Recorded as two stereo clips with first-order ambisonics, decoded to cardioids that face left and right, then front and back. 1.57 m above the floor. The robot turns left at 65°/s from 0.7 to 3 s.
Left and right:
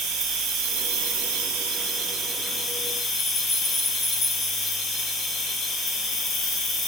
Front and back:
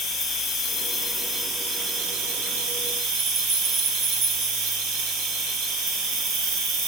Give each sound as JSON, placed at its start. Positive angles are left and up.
{"t": 0.0, "sound": "an insect", "azimuth_deg": -55, "distance_m": 3.5}